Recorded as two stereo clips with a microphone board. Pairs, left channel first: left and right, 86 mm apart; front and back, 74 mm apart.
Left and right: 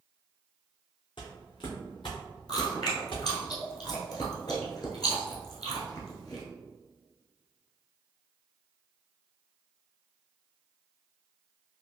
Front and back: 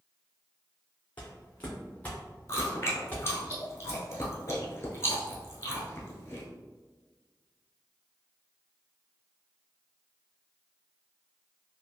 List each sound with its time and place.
1.2 s footsteps: 70° left, 1.0 m; by 3.2 s 65° left, 2 m
2.5 s chewing: 55° left, 1.0 m